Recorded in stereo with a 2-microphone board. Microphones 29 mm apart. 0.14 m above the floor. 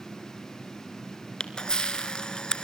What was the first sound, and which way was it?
A camera shutter, 25° left (ahead or behind).